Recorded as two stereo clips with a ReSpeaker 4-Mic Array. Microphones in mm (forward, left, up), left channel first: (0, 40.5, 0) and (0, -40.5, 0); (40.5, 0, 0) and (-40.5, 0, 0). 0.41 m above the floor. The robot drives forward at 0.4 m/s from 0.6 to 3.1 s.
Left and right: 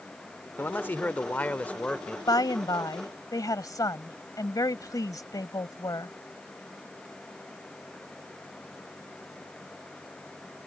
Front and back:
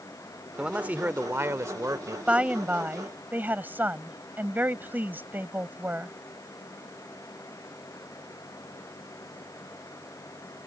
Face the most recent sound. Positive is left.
turn(degrees=120)